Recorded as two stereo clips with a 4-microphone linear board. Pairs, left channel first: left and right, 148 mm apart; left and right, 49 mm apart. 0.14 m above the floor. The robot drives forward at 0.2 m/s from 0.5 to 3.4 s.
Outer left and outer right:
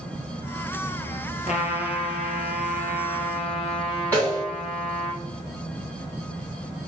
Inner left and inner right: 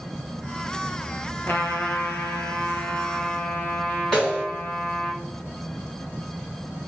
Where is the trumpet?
55° left (ahead or behind), 0.8 m; by 5.1 s 40° left (ahead or behind), 1.0 m.